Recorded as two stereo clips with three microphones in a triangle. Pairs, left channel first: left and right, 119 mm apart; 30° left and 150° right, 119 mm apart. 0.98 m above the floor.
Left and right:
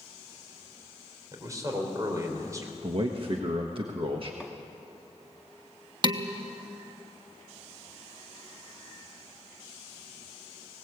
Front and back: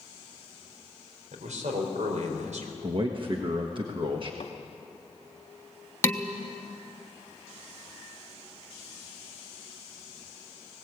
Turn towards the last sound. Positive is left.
turn(degrees=-40)